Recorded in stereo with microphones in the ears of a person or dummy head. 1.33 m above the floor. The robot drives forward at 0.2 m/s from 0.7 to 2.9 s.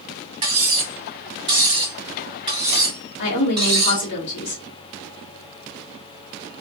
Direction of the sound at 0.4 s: 30° right (ahead or behind).